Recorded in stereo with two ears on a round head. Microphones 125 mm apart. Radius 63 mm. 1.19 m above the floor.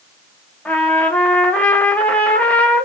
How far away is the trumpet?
About 0.6 m.